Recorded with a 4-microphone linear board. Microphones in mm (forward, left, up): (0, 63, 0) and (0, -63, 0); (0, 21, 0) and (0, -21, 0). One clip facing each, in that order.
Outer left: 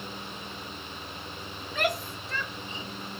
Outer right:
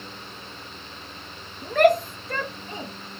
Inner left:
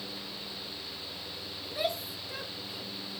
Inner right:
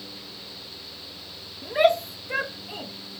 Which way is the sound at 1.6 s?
55° right (ahead or behind).